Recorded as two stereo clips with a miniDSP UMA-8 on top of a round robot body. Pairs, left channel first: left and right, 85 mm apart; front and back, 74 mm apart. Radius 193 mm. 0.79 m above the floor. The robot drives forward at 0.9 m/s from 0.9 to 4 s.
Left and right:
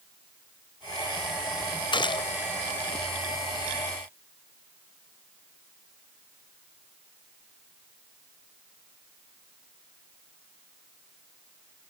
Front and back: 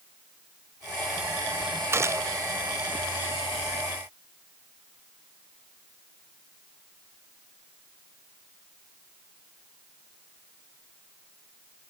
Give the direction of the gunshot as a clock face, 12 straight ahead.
8 o'clock.